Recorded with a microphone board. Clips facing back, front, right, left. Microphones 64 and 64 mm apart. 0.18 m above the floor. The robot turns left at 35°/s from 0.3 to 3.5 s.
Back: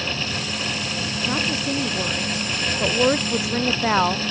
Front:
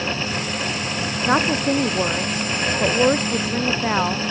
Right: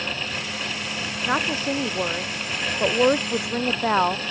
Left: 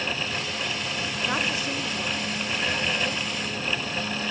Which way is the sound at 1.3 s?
25° right.